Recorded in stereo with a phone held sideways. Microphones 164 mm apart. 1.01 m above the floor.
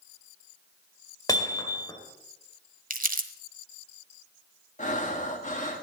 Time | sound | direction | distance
1.3 | hammering | 25° left (ahead or behind) | 2.5 m
2.9 | crumpling | 55° right (ahead or behind) | 1.3 m
4.8 | breathing | 45° left (ahead or behind) | 1.7 m